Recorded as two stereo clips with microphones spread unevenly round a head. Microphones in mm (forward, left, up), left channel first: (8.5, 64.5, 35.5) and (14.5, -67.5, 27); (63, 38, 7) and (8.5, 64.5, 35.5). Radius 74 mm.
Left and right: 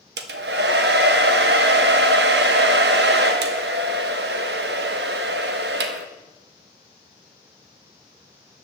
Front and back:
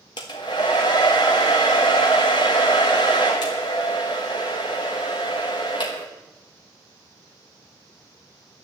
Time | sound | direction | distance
0.2 | a hair dryer | 95° right | 1.1 m